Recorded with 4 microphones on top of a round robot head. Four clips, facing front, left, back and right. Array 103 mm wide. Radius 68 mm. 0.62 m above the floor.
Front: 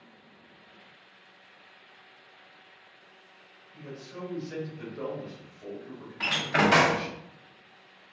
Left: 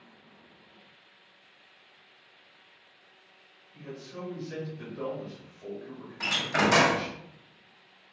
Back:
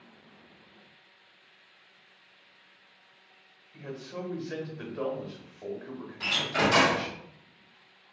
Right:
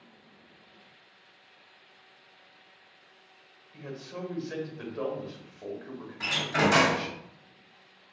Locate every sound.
3.7 s a man speaking: 130° right, 1.0 m
6.2 s a door slam: 20° left, 0.7 m